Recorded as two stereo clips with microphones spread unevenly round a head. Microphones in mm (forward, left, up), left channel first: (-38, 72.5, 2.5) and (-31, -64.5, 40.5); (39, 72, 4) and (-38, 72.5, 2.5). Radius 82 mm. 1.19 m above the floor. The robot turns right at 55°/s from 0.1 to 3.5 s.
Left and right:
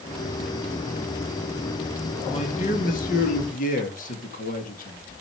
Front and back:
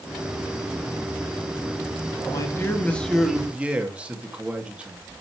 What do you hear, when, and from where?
2.2 s a man speaking: 35° left, 2.5 m; by 5.2 s 105° left, 2.5 m